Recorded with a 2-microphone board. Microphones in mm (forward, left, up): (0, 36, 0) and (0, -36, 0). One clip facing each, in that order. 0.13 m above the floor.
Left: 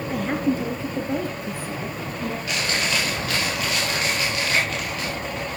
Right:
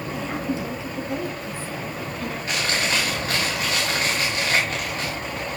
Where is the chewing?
35° right (ahead or behind), 6.5 m.